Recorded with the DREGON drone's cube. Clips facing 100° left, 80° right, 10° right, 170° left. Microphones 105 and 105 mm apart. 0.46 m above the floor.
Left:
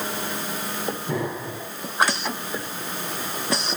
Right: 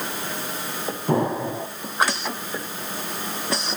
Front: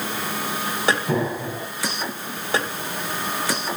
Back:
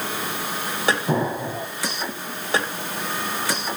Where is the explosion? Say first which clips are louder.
Right 11 dB, back 1 dB; 125° right, 2.5 m.